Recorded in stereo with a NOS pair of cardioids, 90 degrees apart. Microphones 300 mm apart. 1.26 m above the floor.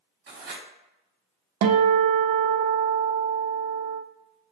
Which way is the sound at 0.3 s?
50° right.